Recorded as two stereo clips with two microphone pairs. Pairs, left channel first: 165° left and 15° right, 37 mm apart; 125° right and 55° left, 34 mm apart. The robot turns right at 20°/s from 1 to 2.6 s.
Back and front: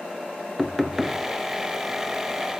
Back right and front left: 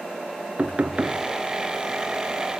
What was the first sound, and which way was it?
Knocking, 80° left.